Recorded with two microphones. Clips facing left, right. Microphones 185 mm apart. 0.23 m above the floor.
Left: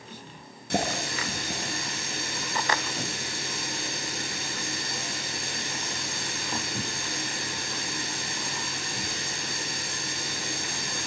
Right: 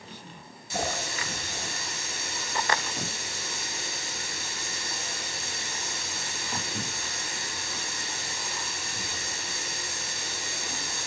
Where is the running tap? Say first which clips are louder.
Left 3 dB; 65° left (ahead or behind), 3 m.